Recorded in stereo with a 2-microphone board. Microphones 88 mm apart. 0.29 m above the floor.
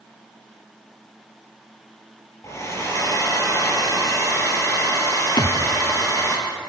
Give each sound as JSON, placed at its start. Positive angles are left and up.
{"t": 2.4, "sound": "a hair dryer", "side_deg": 35, "distance_m": 5.5}
{"t": 5.4, "sound": "a thud", "side_deg": 55, "distance_m": 1.8}